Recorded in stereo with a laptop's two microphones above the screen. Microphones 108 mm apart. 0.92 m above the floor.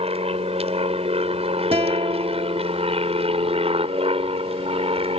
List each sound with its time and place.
0.0 s an aircraft: 70° right (ahead or behind); by 5.2 s 65° right (ahead or behind)
1.7 s a guitar: 65° right (ahead or behind)